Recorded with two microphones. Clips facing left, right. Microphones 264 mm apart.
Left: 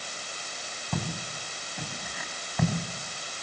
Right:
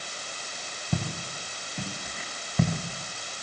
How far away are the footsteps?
About 6.5 m.